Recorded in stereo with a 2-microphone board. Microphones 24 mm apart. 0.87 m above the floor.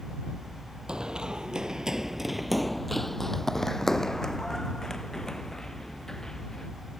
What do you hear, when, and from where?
0.9 s running footsteps: 30° right (ahead or behind); by 6.7 s 20° left (ahead or behind)